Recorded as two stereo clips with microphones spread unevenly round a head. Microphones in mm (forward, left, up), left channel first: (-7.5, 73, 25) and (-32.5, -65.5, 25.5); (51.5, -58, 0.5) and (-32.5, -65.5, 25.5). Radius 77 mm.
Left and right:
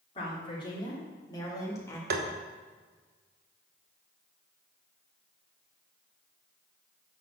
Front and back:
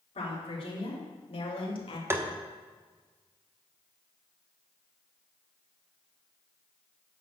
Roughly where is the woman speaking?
Ahead.